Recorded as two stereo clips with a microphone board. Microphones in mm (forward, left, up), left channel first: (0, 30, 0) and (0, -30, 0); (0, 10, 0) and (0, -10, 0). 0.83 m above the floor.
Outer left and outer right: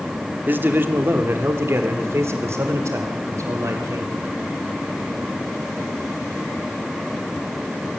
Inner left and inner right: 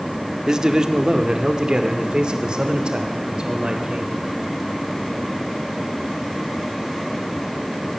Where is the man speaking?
35° right (ahead or behind), 1.9 m; by 4.2 s 60° right (ahead or behind), 3.5 m.